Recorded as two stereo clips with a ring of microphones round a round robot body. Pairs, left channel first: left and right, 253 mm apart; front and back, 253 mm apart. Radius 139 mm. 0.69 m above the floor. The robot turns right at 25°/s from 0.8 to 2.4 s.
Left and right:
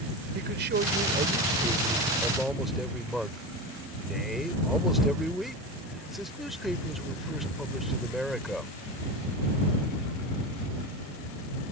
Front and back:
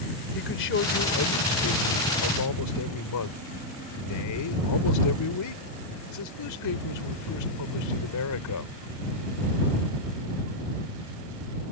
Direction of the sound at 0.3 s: 40° right.